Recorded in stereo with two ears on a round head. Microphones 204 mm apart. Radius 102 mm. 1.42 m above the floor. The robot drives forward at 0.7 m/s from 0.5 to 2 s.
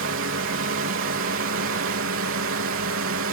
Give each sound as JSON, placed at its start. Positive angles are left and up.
{"t": 0.0, "sound": "a drone", "side_deg": -65}